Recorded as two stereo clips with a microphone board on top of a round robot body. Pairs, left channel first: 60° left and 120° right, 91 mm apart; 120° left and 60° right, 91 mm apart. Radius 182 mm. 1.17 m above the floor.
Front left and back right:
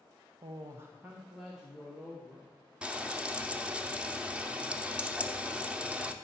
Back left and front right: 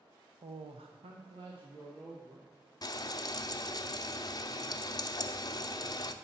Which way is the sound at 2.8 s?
160° left.